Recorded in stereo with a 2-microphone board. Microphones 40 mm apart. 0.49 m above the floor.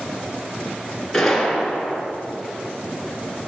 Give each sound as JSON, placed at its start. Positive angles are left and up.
{"t": 1.1, "sound": "a gunshot", "side_deg": 0, "distance_m": 1.8}